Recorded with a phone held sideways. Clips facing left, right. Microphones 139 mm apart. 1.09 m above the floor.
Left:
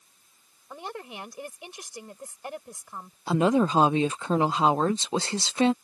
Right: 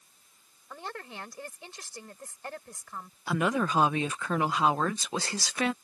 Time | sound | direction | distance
0.7 | a woman speaking | 20° left (ahead or behind) | ?
3.3 | a woman speaking | 25° left (ahead or behind) | ?